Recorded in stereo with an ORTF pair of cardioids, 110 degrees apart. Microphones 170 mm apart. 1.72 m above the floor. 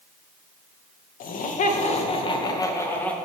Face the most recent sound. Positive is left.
turn(degrees=10)